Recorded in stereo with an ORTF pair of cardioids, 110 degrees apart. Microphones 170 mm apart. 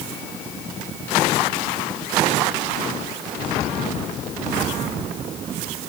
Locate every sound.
Only background noise.